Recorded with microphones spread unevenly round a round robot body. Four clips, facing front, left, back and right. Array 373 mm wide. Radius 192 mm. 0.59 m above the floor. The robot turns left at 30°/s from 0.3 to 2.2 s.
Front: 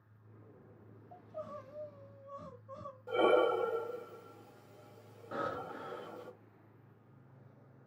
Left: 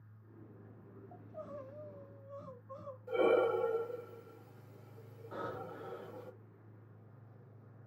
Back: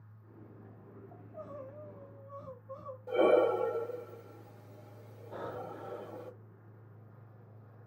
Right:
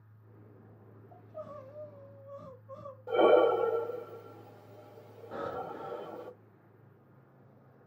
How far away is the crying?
About 1.6 m.